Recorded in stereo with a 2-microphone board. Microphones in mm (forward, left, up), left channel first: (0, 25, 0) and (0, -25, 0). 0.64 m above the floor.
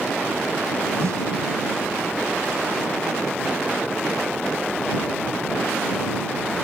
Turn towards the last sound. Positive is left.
turn(degrees=-85)